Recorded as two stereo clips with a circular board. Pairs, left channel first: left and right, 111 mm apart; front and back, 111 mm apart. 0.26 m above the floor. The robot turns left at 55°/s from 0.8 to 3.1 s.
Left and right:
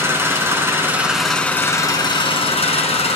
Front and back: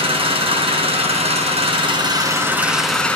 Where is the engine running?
155° right, 1.9 m; by 3.2 s 80° left, 1.9 m.